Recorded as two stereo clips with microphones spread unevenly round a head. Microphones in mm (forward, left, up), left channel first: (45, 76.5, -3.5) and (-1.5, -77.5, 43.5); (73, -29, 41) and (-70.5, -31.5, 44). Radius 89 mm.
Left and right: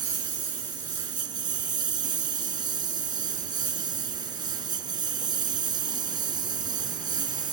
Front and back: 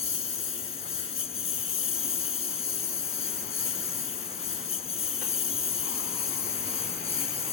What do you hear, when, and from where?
0.0 s a lawn mower: 45° right